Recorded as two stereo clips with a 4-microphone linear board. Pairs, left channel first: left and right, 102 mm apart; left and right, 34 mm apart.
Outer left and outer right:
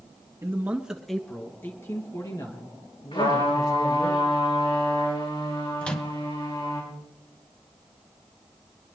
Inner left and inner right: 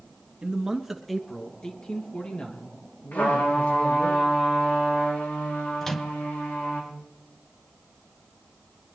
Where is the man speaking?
25° right (ahead or behind), 1.7 m; by 4.1 s 50° left (ahead or behind), 5 m.